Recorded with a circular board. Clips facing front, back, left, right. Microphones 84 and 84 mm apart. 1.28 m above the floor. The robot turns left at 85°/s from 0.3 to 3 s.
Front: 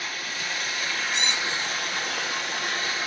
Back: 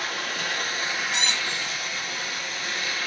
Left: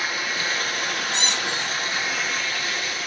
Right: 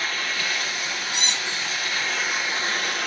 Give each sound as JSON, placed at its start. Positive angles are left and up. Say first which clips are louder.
{"t": 0.0, "sound": "running water", "louder": "back 3 dB, left 1 dB", "azimuth_deg": 165, "distance_m": 2.5}
{"t": 1.1, "sound": "a squeak", "louder": "even, left 3 dB", "azimuth_deg": -165, "distance_m": 2.5}